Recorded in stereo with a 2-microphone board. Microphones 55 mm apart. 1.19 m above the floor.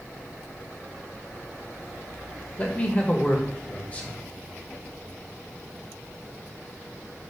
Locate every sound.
2.6 s a man speaking: 25° left (ahead or behind), 1.4 m